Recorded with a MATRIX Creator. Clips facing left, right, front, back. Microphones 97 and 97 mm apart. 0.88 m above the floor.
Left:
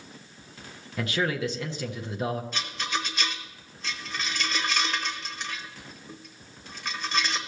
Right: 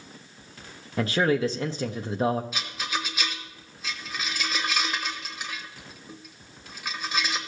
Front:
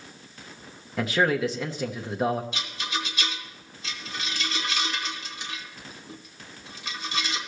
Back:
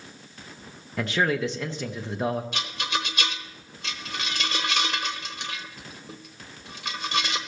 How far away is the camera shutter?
I don't hear a camera shutter.